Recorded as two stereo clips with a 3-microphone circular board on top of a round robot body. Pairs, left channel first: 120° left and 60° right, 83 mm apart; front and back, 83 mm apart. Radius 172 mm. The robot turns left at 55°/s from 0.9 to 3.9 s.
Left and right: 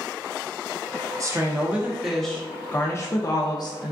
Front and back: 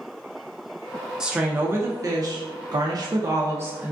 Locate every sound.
1.2 s a woman speaking: 100° right, 0.6 m; by 3.9 s 115° left, 0.6 m